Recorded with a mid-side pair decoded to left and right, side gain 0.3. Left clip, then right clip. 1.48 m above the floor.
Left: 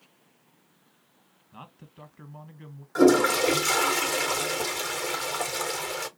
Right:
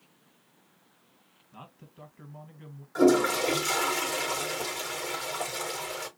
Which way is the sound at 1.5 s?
40° left.